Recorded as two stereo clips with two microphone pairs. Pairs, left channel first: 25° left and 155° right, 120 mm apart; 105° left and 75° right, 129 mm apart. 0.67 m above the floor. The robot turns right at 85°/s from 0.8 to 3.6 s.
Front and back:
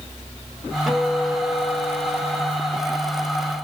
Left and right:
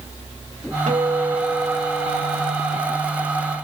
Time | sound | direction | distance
0.9 | a guitar | 65° right | 1.5 m